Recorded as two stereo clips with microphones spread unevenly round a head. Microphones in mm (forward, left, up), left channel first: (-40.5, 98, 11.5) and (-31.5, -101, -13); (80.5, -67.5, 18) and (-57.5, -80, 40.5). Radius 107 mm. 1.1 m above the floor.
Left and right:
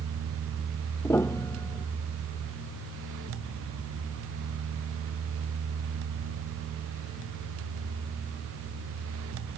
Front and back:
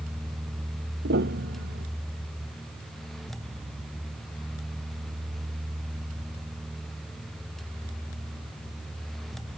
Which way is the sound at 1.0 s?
170° left.